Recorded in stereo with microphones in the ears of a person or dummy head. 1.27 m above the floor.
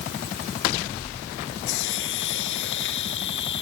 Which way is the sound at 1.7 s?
65° left (ahead or behind).